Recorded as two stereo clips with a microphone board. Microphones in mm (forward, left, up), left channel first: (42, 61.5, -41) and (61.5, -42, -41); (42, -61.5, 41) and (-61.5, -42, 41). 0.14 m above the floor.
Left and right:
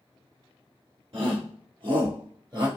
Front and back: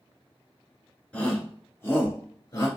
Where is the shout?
85° right, 2 m; by 2.7 s 55° right, 1.9 m.